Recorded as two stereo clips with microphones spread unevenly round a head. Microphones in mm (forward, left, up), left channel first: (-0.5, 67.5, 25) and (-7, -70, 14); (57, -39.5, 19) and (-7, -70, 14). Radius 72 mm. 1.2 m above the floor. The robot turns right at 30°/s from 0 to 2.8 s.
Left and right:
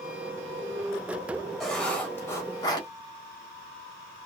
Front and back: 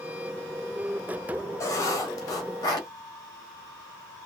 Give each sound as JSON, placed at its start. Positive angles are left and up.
{"t": 1.6, "sound": "writing", "azimuth_deg": 5, "distance_m": 1.0}